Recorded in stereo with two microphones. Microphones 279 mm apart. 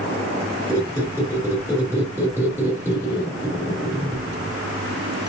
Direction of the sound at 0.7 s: 10° right (ahead or behind).